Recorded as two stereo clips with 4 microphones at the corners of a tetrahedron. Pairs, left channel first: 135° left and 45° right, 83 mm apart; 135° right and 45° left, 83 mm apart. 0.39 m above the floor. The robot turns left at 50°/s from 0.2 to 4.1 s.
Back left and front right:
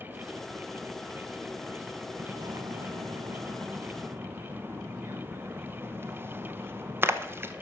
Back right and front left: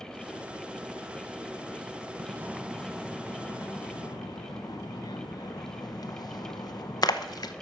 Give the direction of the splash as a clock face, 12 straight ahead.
12 o'clock.